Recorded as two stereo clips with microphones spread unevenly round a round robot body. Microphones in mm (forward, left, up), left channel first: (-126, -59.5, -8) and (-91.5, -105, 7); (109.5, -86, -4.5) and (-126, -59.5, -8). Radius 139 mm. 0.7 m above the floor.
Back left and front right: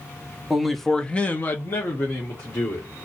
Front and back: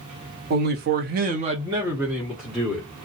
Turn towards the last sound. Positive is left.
turn(degrees=80)